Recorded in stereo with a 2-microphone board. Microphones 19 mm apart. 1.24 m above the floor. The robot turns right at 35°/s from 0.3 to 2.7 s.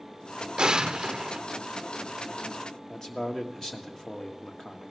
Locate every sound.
0.6 s an explosion: 45° right (ahead or behind), 0.6 m; by 1.4 s 35° right (ahead or behind), 0.6 m
2.9 s a man speaking: 30° left (ahead or behind), 1.6 m